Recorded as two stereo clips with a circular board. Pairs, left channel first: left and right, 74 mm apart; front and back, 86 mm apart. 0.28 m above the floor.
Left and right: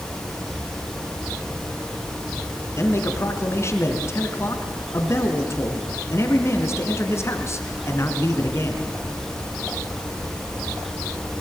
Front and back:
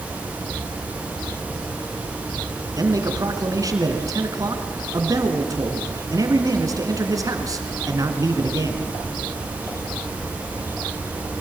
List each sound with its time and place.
2.8 s a man speaking: 140° left, 3 m